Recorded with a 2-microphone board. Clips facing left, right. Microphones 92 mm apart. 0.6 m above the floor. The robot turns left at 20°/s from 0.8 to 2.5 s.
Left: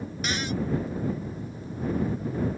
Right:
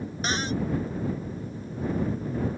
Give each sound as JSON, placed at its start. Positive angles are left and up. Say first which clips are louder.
{"t": 0.2, "sound": "a cupboard door", "louder": "right 2 dB", "side_deg": -35}